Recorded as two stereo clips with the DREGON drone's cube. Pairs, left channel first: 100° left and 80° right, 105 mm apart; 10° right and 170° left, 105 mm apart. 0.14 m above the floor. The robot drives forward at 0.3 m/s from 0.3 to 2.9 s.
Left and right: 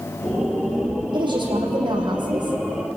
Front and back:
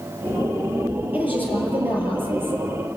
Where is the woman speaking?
115° right, 4.5 m; by 2.6 s 120° right, 5 m.